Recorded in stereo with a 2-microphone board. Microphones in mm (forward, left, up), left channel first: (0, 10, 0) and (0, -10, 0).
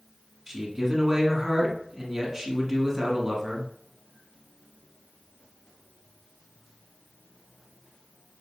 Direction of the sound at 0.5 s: 25° right (ahead or behind).